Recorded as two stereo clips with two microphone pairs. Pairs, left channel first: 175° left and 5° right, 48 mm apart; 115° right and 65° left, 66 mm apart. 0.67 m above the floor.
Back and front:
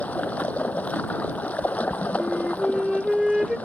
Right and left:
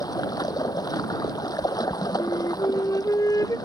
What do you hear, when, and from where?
0.0 s running water: 130° right
2.2 s a flute: 85° right